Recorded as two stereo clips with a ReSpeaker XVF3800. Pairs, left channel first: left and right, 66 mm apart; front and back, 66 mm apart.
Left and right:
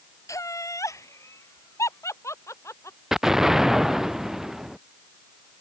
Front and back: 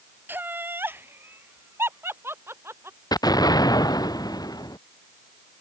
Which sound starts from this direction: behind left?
Laughter, at 0.3 s.